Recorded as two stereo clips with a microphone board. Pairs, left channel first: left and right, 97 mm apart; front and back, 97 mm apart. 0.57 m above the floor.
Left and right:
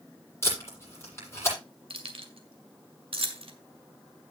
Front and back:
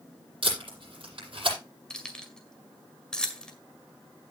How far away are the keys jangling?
About 1.9 m.